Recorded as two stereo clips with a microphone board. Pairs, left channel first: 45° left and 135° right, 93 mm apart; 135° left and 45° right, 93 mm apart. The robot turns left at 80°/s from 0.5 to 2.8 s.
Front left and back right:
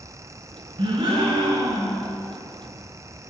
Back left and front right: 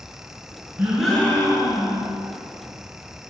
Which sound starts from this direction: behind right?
A gasp, at 0.8 s.